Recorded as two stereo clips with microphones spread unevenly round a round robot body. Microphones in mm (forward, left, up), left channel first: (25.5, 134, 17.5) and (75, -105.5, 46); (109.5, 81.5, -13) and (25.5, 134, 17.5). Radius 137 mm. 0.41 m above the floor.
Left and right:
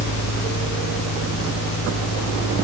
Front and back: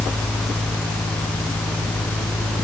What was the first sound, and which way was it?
Only background noise.